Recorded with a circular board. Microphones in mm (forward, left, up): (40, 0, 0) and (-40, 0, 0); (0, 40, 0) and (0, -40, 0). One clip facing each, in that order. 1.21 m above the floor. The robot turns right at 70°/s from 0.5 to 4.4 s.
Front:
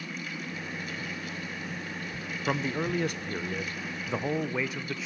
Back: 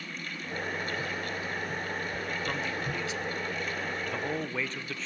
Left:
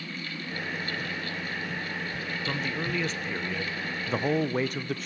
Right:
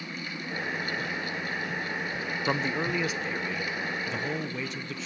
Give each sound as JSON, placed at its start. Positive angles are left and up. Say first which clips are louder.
{"t": 2.5, "sound": "a man speaking", "louder": "front 4 dB, right 4 dB", "azimuth_deg": -55, "distance_m": 0.9}